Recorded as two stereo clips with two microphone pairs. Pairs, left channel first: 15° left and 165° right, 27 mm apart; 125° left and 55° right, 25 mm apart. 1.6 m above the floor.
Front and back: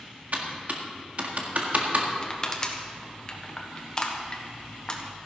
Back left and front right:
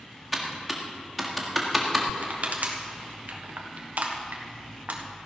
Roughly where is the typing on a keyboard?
Behind right.